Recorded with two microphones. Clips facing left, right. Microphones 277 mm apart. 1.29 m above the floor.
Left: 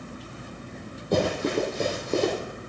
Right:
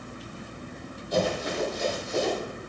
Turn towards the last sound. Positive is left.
turn(degrees=70)  # may be behind; listen again after turning